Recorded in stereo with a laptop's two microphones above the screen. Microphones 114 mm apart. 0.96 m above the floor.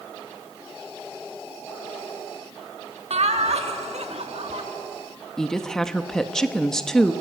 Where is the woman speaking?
5° left (ahead or behind), 1.0 m.